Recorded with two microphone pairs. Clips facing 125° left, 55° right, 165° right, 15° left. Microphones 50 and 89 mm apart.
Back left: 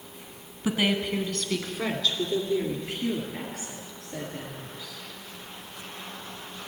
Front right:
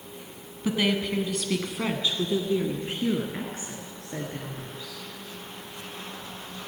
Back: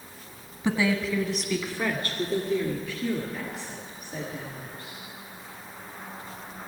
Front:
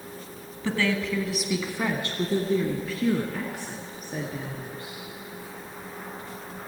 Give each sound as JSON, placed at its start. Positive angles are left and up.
{"t": 0.6, "sound": "a woman speaking", "azimuth_deg": 180, "distance_m": 1.3}